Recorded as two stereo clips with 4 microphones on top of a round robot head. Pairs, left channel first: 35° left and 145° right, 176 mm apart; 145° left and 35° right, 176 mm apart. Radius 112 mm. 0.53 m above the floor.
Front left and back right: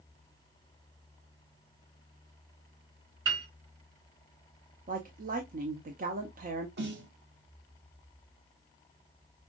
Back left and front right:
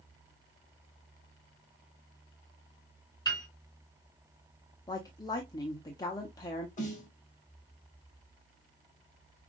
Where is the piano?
145° right, 2.5 m.